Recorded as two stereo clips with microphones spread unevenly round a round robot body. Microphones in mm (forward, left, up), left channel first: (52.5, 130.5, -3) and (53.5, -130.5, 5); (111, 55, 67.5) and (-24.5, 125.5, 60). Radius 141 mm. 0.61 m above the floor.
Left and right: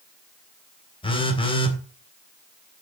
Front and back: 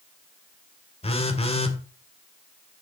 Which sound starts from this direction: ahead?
A phone buzzing, at 1.0 s.